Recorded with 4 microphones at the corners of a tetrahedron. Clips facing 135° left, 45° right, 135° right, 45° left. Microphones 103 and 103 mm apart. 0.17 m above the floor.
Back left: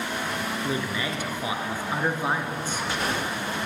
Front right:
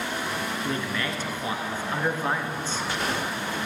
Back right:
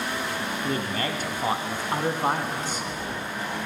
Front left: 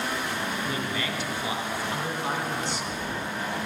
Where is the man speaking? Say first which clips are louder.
Back left 1 dB, back right 3 dB; 150° right, 1.7 m.